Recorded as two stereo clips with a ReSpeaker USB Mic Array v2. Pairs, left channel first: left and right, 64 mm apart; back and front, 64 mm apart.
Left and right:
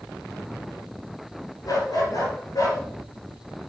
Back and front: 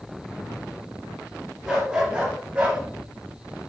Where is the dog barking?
80° left, 4.5 m; by 2.8 s 70° left, 4 m.